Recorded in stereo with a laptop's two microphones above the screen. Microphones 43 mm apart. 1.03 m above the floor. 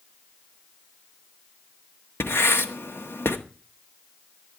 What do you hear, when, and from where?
2.2 s writing: 80° left, 1.4 m